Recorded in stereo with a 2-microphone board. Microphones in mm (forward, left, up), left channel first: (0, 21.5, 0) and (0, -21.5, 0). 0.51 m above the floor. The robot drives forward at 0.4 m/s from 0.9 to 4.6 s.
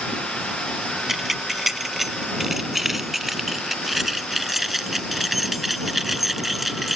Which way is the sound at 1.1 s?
5° right (ahead or behind).